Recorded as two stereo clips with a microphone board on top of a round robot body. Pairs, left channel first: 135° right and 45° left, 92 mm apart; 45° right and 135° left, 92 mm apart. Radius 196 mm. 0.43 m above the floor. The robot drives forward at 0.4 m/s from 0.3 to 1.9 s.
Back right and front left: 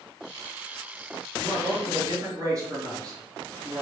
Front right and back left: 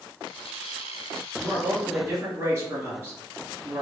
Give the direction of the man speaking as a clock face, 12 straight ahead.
9 o'clock.